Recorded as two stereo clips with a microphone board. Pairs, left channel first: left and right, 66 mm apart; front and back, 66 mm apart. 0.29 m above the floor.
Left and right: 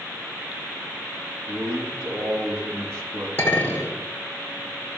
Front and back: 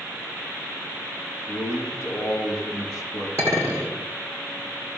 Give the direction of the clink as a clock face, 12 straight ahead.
7 o'clock.